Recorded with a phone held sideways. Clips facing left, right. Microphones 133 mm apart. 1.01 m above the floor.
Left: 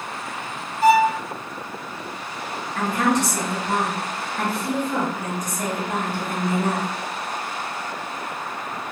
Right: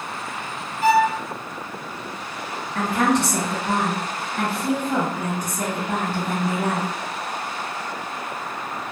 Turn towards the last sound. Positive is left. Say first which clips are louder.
# right 1 dB
turn(degrees=-65)  # may be behind; listen again after turning